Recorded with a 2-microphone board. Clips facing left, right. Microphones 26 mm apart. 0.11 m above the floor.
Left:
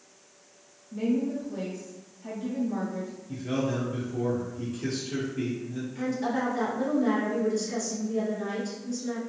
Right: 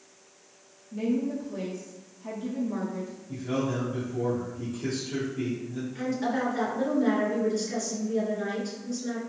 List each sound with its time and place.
0.9 s a woman speaking: 5° left (ahead or behind), 1.3 m
3.3 s a man speaking: 30° left (ahead or behind), 1.9 m
6.0 s a woman speaking: 25° right (ahead or behind), 1.5 m